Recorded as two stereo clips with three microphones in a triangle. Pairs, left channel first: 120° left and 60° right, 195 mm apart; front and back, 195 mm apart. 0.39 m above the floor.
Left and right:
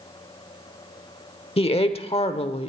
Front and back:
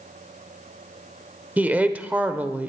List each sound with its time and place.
1.6 s a woman speaking: 105° left, 0.9 m